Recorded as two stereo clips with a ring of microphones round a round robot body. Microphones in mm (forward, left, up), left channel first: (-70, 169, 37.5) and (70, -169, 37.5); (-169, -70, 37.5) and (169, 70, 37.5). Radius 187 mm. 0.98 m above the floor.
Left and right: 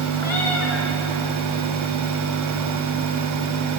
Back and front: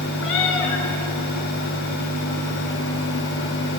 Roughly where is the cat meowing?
Behind.